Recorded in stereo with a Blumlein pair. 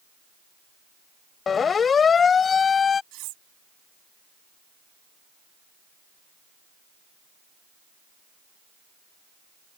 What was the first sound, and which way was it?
A siren, 20° left.